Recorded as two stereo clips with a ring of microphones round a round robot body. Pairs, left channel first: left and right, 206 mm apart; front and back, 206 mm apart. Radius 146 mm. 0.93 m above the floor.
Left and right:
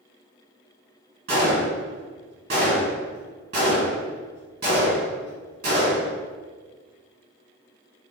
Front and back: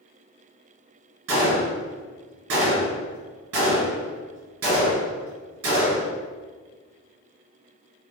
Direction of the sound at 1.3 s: 150° right.